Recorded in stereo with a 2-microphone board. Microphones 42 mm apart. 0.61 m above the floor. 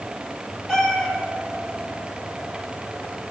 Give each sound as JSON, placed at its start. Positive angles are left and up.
{"t": 0.7, "sound": "a cat meowing", "side_deg": 15, "distance_m": 8.5}